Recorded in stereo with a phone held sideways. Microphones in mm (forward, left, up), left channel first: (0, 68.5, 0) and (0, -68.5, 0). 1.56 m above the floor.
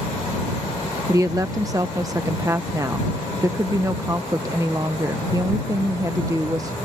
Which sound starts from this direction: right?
A woman speaking, at 1.1 s.